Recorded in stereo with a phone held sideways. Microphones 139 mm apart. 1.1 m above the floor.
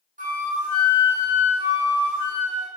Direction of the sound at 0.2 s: 75° right (ahead or behind).